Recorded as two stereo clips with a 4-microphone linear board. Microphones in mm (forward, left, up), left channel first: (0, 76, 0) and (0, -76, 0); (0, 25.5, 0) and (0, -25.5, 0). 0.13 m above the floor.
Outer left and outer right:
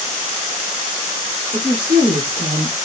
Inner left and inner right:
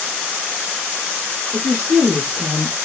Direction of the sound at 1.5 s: 35° right (ahead or behind).